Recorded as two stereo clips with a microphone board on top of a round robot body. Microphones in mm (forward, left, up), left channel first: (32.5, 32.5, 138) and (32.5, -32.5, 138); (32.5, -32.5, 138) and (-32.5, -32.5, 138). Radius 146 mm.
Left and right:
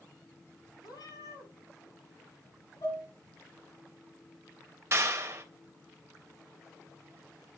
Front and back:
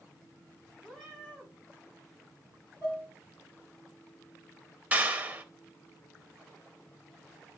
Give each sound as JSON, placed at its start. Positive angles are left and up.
{"t": 0.8, "sound": "a cat meowing", "azimuth_deg": 95, "distance_m": 6.0}
{"t": 2.8, "sound": "dishes clattering", "azimuth_deg": 100, "distance_m": 4.0}
{"t": 4.9, "sound": "a clap", "azimuth_deg": -120, "distance_m": 1.5}